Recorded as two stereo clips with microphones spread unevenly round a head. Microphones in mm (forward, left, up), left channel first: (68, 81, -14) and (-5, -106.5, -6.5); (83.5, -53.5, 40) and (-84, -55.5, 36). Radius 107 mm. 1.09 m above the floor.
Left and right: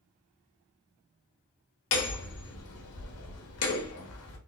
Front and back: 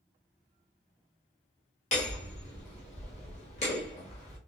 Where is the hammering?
60° left, 1.4 m.